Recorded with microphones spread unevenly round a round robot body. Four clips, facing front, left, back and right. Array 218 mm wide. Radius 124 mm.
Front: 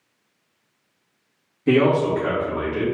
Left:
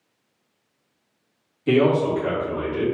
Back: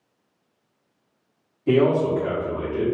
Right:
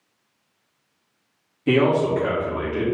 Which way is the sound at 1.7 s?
65° right.